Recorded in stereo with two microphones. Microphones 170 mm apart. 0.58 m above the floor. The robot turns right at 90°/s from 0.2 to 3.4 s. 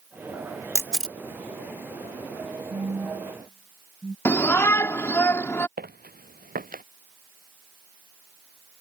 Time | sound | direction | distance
0.8 | a camera shutter | 20° right (ahead or behind) | ?
2.7 | a phone buzzing | 65° right (ahead or behind) | ?
4.2 | a shout | 15° left (ahead or behind) | ?
5.8 | footsteps | 65° right (ahead or behind) | ?